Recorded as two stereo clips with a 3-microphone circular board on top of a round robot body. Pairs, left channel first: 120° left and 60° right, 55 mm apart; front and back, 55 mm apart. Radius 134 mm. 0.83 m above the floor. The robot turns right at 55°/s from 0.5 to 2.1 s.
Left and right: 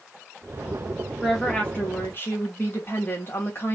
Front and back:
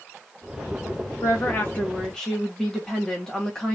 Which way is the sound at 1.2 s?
30° left.